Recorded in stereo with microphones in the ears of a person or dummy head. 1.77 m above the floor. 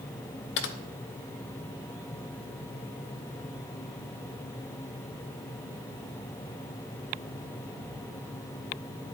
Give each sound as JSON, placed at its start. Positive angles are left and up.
{"t": 0.6, "sound": "typing on a keyboard", "side_deg": 60, "distance_m": 0.7}